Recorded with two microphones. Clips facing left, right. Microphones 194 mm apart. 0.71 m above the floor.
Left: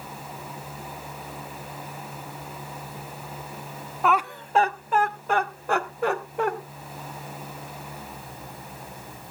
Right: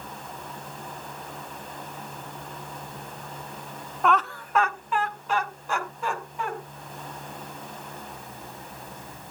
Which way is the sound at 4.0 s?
Centre (ahead or behind).